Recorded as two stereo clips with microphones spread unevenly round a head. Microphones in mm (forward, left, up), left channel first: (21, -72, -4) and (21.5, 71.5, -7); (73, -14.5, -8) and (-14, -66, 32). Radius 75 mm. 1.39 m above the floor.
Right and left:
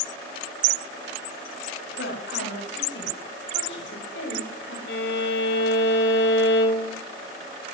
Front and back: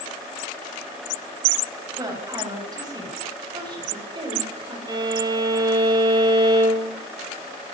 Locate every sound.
2.0 s a woman speaking: 95° right, 9.5 m; by 4.8 s 110° right, 7.5 m
4.9 s a violin: 105° right, 4 m